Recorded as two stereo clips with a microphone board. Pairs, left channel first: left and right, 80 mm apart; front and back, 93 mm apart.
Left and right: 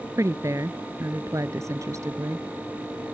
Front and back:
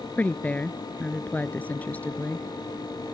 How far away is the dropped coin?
No dropped coin in this recording.